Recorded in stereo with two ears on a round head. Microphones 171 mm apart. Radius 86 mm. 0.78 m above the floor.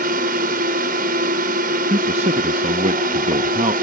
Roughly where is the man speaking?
Right.